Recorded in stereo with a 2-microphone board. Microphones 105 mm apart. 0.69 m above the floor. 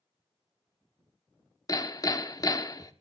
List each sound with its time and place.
1.7 s hammering: 40° left (ahead or behind), 1.1 m